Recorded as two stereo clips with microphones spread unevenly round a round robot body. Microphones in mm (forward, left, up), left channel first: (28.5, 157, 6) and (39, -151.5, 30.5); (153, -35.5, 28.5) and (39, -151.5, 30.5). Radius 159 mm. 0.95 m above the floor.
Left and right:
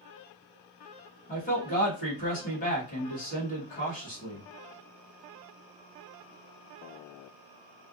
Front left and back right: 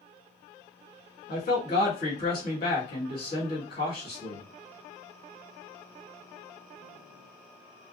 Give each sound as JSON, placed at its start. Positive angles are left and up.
{"t": 1.3, "sound": "a man speaking", "azimuth_deg": 30, "distance_m": 1.5}